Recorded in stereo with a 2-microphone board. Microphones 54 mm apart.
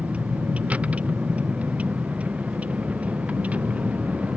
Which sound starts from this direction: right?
A vehicle, at 0.0 s.